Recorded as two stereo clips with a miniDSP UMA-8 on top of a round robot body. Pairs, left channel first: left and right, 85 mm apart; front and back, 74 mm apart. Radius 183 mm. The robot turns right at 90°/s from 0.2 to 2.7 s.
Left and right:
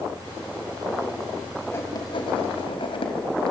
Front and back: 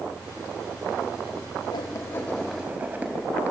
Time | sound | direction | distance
1.7 | writing | 25° left | 2.5 m